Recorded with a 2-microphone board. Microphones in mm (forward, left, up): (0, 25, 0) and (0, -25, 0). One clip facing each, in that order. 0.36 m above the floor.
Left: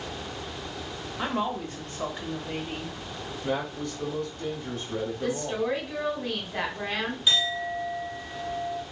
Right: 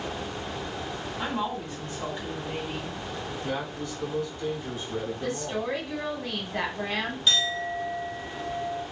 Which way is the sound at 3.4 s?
50° left (ahead or behind).